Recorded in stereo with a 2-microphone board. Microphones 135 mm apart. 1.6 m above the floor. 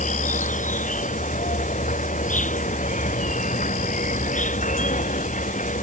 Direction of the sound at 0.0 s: 60° left (ahead or behind).